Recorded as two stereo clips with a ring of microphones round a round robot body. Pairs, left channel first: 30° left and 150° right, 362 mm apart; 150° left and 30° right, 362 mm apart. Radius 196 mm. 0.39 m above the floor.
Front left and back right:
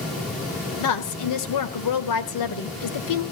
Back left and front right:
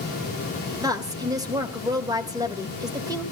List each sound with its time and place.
0.8 s a woman speaking: 50° left, 1.8 m